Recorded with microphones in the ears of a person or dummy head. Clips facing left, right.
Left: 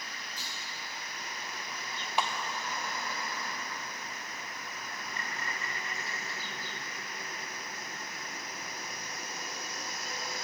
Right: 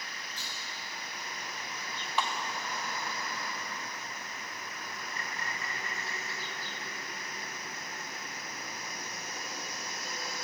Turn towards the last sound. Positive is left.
turn(degrees=25)  # may be behind; listen again after turning